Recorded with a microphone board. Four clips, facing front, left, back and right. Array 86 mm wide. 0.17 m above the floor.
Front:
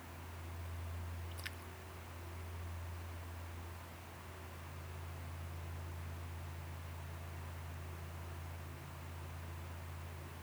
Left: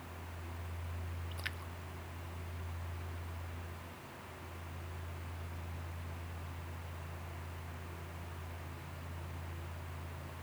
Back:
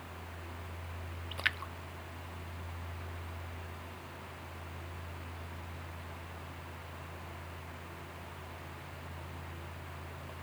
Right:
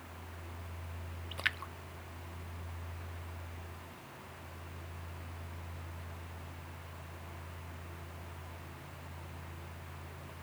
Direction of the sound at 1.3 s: 145° right.